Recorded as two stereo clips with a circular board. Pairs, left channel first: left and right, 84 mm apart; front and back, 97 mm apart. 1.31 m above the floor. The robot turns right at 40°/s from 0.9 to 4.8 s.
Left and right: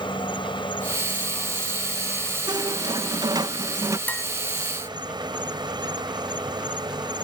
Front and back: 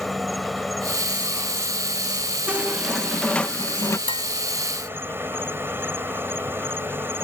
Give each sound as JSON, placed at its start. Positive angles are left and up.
{"t": 0.0, "sound": "an insect", "azimuth_deg": 90}
{"t": 2.5, "sound": "a squeak", "azimuth_deg": -110}
{"t": 4.1, "sound": "dishes clattering", "azimuth_deg": 20}